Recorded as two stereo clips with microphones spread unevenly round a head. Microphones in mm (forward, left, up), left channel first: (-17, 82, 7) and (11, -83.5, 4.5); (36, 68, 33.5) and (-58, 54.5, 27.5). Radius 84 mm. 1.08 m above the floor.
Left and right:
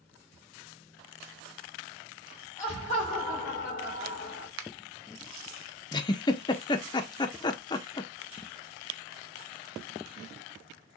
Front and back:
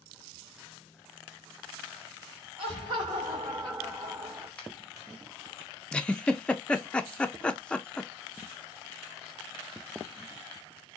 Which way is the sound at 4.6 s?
75° right.